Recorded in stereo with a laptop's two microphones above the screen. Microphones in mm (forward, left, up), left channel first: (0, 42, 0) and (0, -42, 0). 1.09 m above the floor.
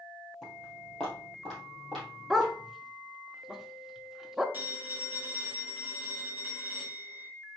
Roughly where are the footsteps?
Centre.